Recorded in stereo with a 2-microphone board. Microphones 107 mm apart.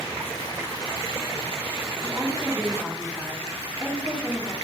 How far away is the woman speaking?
About 2 m.